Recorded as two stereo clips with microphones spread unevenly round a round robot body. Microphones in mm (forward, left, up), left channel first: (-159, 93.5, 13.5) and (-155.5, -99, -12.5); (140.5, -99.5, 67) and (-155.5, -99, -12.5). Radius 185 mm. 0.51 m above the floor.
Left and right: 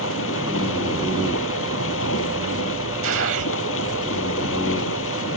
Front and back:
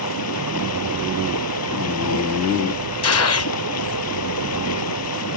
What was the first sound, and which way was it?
Running water, 50° left.